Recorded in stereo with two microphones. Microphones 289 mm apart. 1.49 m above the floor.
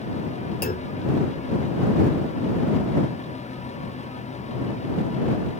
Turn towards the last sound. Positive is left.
turn(degrees=30)  # may be behind; listen again after turning